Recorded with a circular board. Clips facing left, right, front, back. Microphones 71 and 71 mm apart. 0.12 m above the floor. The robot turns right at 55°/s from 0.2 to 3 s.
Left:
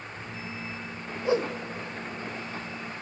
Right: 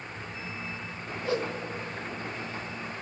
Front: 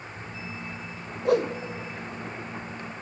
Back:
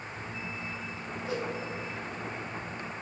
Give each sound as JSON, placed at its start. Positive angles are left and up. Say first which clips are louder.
{"t": 1.2, "sound": "a whoosh", "louder": "left 4 dB, front 12 dB", "azimuth_deg": 20, "distance_m": 1.1}